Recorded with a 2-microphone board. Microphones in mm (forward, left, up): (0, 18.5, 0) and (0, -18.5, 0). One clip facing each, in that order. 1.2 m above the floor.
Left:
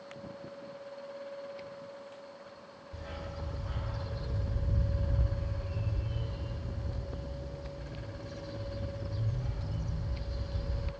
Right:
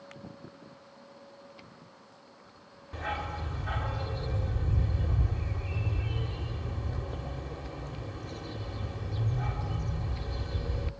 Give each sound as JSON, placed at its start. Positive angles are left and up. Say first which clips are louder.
{"t": 2.9, "sound": "a dog barking", "louder": "right 9 dB", "side_deg": -60, "distance_m": 1.6}